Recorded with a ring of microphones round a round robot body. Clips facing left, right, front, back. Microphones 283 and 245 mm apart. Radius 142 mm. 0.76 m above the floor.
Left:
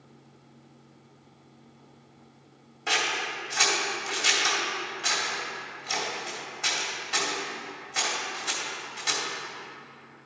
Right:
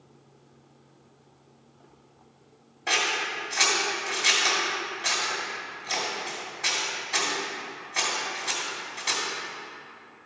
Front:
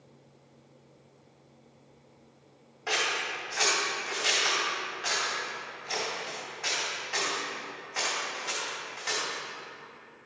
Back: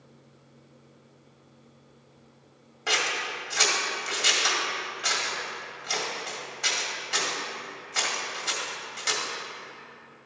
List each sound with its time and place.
2.9 s scissors: 145° left, 2 m